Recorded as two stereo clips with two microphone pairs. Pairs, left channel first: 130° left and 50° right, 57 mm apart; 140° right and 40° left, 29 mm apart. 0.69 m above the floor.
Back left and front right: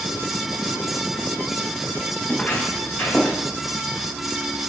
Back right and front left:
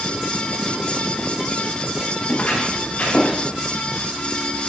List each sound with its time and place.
2.3 s footsteps: 175° right, 5 m; by 3.4 s 170° right, 6.5 m